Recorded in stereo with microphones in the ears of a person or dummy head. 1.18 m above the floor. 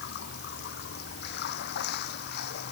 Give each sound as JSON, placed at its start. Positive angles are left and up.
{"t": 0.0, "sound": "running water", "side_deg": 60}